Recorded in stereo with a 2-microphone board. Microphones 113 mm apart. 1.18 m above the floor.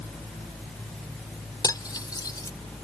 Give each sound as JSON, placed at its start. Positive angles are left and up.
{"t": 1.6, "sound": "cutlery clinking", "side_deg": 35}